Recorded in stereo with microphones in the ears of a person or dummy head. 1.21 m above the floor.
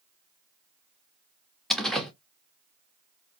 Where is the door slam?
Centre (ahead or behind), 0.9 m.